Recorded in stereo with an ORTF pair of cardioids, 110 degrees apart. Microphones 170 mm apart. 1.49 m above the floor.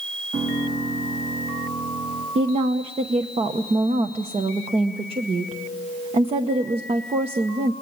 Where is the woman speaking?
40° right, 1.0 m.